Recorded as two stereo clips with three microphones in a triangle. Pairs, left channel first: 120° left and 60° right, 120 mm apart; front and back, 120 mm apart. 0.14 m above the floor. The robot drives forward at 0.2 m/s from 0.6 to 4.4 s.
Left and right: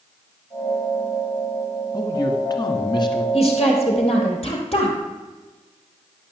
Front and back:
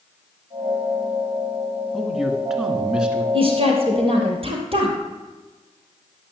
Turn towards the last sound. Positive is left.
turn(degrees=150)